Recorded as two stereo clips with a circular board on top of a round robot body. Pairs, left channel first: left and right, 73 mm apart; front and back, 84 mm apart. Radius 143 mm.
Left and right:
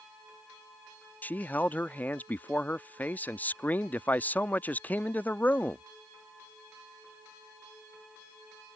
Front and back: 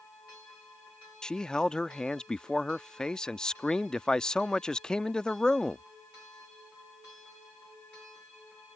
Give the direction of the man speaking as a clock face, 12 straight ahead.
10 o'clock.